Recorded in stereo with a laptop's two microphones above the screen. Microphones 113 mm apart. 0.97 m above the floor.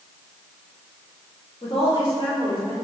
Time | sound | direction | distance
1.6 | a woman speaking | 60° left (ahead or behind) | 1.9 m